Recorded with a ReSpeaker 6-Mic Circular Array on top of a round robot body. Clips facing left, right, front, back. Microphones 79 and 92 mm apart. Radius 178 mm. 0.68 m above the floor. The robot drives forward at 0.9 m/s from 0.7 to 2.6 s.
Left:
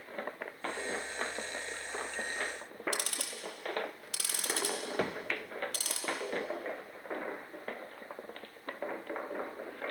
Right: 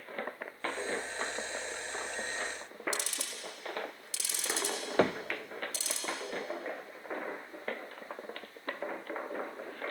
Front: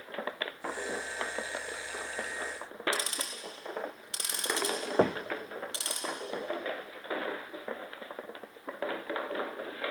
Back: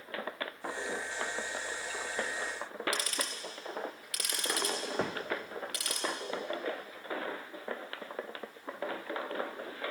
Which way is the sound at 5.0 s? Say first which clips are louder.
Right 8 dB, front 10 dB; 45° right.